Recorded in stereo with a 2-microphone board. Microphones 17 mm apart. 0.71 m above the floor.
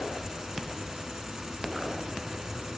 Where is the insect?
30° right (ahead or behind), 0.8 m.